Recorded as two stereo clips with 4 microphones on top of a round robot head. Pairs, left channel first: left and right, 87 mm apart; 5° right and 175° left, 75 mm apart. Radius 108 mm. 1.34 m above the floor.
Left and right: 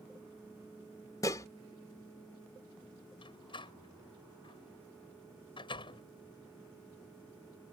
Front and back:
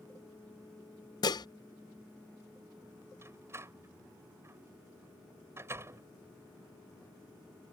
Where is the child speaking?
No child speaking in this recording.